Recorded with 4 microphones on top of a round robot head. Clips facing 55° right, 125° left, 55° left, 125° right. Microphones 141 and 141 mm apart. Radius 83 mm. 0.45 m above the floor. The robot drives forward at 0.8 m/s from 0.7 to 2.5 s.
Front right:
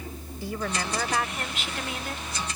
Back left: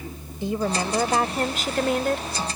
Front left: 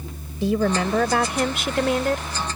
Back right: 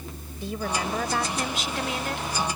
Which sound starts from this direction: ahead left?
A woman speaking, at 0.4 s.